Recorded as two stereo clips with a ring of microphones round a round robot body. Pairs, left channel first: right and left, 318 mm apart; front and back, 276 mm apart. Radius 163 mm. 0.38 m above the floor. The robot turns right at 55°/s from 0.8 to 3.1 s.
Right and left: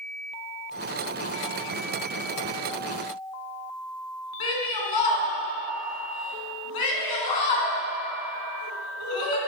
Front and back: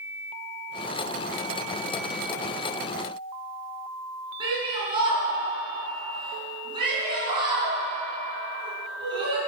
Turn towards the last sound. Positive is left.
turn(degrees=-105)